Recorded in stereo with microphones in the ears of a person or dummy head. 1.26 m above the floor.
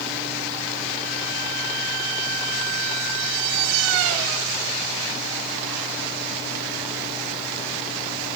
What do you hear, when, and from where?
Only background noise.